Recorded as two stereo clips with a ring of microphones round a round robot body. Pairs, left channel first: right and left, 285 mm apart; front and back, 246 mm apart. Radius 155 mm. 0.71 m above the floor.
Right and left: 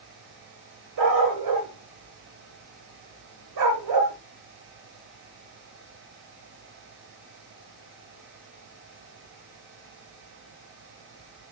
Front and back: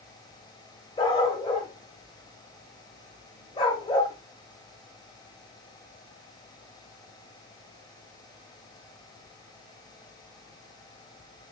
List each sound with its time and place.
1.0 s a dog barking: 70° left, 1.0 m